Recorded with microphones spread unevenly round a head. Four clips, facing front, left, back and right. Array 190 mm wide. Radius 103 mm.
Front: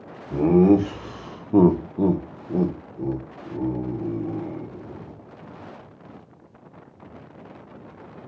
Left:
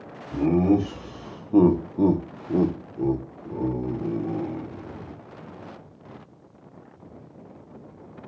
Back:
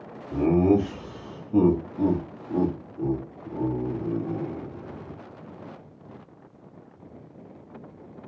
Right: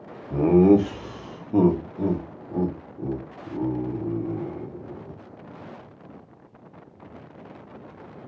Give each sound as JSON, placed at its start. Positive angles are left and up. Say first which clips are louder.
{"t": 0.3, "sound": "laughter", "louder": "right 4 dB, front 4 dB", "azimuth_deg": -75, "distance_m": 0.9}